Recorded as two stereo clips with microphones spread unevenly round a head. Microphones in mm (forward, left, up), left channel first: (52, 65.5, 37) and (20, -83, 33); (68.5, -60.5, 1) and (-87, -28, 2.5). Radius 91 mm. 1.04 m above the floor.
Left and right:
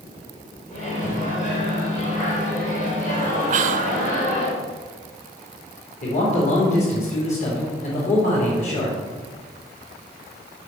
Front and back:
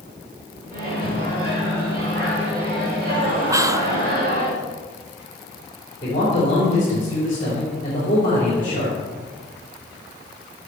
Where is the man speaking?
50° left, 3.5 m.